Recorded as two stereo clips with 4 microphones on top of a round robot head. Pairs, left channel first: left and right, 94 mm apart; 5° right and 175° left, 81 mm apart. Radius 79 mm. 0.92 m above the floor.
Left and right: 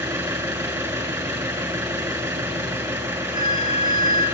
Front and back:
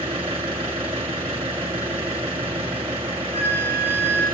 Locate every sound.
0.0 s an engine running: 145° right, 2.5 m
3.3 s a flute: 35° left, 4.5 m